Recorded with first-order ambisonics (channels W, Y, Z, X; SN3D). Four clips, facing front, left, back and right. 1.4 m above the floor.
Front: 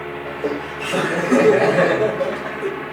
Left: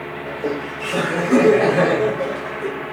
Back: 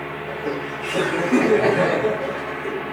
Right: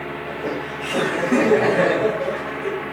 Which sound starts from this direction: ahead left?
Laughter, at 0.3 s.